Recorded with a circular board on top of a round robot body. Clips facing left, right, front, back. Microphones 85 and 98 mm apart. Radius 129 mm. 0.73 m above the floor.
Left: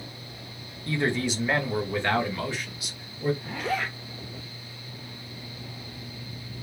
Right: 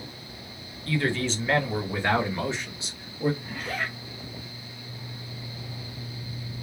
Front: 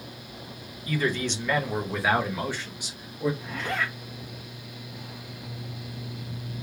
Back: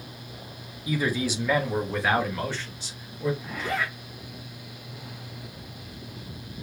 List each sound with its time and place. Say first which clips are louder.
0.9 s a man speaking: even, back 1 dB; 120° left, 1.2 m; by 3.3 s 60° right, 1.4 m
3.4 s a zipper: left 3 dB, back 1 dB; 95° left, 0.7 m